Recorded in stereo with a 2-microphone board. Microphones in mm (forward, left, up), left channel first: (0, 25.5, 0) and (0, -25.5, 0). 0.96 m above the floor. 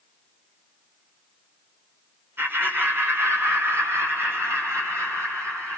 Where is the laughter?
50° right (ahead or behind), 3.5 m; by 5.8 s 65° right (ahead or behind), 7 m.